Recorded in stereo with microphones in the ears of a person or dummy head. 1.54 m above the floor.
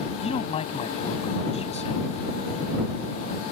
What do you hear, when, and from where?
0.2 s a man speaking: 35° left (ahead or behind)